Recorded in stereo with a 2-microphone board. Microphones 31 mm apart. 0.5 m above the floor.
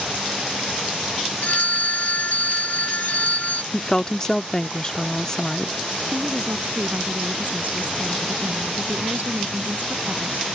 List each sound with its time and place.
1.4 s a phone ringing: 60° left (ahead or behind)
3.7 s a woman speaking: 20° left (ahead or behind)
6.1 s a woman speaking: 65° right (ahead or behind)